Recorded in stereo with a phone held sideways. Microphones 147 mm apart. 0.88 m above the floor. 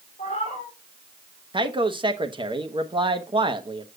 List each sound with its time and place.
0.2 s a cat meowing: 50° left (ahead or behind), 3.5 m
1.5 s a man speaking: 35° right (ahead or behind), 0.8 m